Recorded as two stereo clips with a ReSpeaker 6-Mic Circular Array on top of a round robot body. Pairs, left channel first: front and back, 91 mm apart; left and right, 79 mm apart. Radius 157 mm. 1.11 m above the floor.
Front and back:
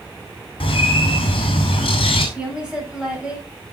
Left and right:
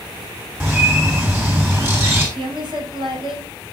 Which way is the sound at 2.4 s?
100° right.